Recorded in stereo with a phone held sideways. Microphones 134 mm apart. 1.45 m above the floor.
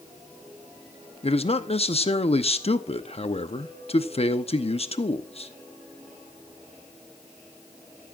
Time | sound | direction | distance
1.2 | a man speaking | 50° left (ahead or behind) | 0.8 m